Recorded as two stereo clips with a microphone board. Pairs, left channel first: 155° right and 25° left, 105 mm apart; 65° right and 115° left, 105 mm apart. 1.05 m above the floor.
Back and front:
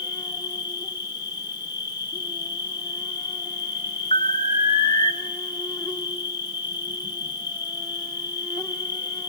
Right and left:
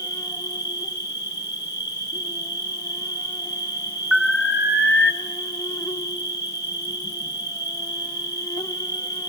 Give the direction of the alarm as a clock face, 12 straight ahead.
5 o'clock.